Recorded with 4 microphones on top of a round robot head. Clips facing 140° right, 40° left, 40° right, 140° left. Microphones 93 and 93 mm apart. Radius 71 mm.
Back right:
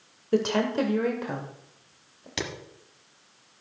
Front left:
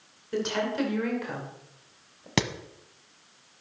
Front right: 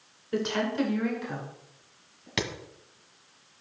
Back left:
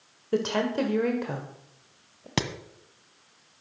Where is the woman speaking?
170° right, 2 m; by 2.3 s 135° left, 2.5 m.